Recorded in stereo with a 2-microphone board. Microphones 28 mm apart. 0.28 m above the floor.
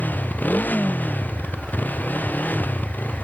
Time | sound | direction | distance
0.0 | a motorcycle | 75° left (ahead or behind) | ?